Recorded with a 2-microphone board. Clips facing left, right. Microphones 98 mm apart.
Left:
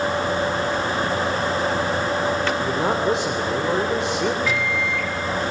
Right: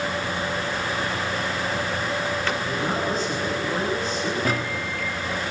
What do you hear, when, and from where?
2.6 s a man speaking: 85° left, 3.5 m
4.5 s a microwave: 45° right (ahead or behind), 1.7 m